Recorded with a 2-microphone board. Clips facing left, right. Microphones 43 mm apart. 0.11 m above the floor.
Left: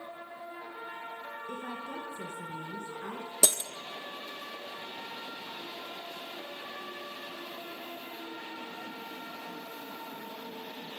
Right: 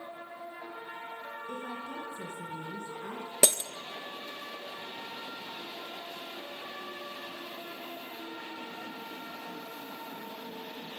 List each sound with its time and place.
1.5 s a woman speaking: 30° left (ahead or behind), 1.9 m
3.4 s breaking glass: 40° right (ahead or behind), 0.6 m